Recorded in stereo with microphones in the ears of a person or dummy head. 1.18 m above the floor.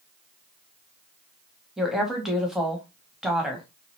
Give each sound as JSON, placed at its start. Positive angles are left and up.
{"t": 1.8, "sound": "a woman speaking", "side_deg": 0, "distance_m": 1.0}